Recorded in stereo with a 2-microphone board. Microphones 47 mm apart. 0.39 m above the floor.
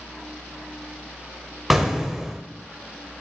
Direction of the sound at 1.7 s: 5° right (ahead or behind).